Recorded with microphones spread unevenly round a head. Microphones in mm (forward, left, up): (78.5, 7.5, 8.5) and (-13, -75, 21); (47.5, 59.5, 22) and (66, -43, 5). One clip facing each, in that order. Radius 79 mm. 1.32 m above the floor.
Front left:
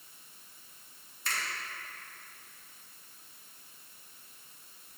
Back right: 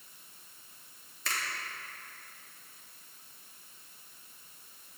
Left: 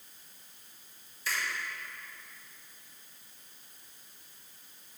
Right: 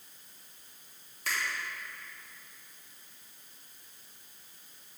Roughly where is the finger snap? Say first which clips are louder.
Even, even; behind right.